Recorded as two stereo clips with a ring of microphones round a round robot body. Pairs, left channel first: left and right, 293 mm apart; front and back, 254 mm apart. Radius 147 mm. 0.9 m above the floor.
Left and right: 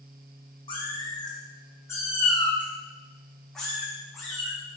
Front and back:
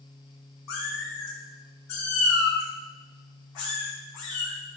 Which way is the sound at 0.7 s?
15° left.